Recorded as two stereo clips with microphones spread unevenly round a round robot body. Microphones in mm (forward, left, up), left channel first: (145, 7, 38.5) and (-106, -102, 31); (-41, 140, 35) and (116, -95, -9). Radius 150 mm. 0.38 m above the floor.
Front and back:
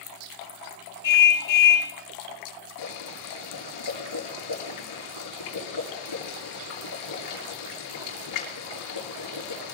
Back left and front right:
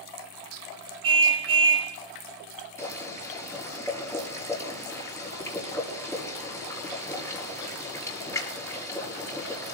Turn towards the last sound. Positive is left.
turn(degrees=45)